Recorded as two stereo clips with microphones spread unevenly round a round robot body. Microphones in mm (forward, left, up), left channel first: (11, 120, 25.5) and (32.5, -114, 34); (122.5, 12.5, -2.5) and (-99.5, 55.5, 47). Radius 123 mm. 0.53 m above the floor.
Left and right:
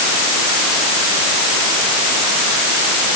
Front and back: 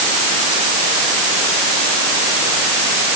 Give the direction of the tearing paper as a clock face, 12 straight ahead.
No tearing paper in this recording.